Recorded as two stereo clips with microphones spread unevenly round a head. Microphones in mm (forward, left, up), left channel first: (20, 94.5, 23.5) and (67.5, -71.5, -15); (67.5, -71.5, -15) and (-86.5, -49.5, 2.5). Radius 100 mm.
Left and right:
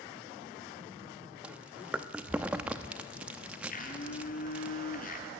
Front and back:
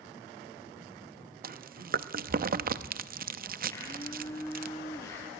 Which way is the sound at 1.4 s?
160° right.